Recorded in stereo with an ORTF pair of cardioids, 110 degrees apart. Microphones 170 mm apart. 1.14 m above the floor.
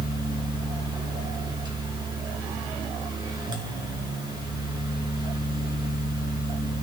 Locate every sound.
0.0 s a fan: 25° right, 3 m